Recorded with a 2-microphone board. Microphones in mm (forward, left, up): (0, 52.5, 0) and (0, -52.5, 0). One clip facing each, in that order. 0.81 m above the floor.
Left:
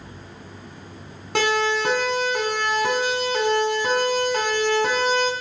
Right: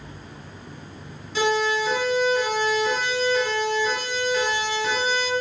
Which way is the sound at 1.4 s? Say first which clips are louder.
Left 1 dB; 65° left (ahead or behind).